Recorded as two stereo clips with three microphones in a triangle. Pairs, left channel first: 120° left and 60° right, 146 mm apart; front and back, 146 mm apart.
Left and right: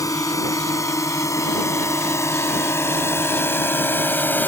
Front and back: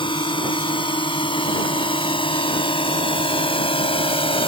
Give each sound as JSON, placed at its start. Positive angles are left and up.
{"t": 0.0, "sound": "a drone", "azimuth_deg": 55}